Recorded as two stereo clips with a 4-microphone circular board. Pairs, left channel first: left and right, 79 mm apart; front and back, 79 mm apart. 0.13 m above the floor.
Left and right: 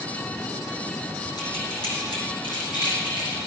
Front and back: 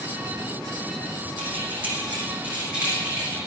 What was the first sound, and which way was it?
Keys jangling, 110° left.